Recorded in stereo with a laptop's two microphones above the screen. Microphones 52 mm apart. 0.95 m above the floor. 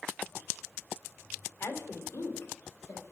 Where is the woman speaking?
50° left (ahead or behind), 3 m; by 3.1 s 85° left, 3.5 m.